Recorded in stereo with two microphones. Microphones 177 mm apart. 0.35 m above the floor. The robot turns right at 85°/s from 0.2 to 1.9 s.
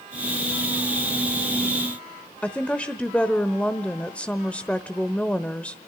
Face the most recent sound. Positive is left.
turn(degrees=10)  # may be behind; listen again after turning